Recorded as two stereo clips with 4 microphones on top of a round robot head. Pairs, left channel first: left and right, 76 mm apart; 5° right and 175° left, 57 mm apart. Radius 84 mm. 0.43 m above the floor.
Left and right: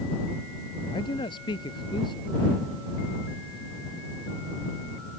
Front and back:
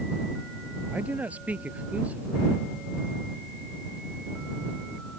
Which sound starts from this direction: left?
A man speaking, at 0.9 s.